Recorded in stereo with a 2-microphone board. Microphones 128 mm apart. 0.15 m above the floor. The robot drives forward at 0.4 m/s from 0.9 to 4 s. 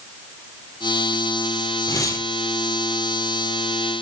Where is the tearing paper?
25° left (ahead or behind), 0.9 m.